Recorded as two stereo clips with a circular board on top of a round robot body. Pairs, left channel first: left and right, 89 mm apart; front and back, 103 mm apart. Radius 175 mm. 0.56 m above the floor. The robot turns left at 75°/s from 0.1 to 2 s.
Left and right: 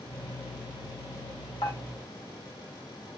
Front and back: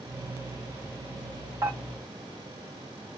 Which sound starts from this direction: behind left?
Dishes clattering, at 1.6 s.